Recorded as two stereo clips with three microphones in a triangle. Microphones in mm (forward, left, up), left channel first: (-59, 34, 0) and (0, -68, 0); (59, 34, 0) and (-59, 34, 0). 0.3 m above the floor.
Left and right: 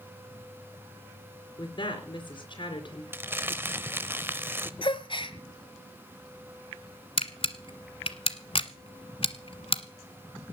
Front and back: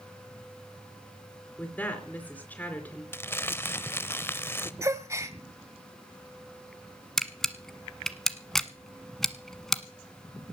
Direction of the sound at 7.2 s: 85° left.